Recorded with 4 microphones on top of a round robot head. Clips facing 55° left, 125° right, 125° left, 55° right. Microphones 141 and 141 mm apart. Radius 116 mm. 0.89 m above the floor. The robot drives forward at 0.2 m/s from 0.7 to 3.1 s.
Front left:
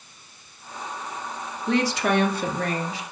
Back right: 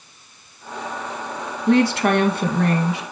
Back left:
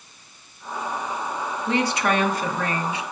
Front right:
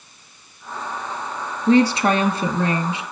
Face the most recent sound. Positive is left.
turn(degrees=-120)